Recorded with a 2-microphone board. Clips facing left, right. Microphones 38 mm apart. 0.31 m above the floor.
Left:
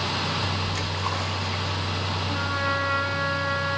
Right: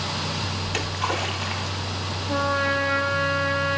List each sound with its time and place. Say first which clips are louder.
0.6 s a splash: right 2 dB; 80° right, 4.5 m
2.3 s a trumpet: right 5 dB; 45° right (ahead or behind), 8.5 m